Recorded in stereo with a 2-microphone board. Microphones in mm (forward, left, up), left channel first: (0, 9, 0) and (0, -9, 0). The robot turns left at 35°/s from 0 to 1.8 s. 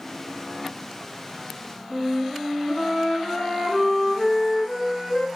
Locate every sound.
1.9 s a flute: 75° left (ahead or behind), 1.2 m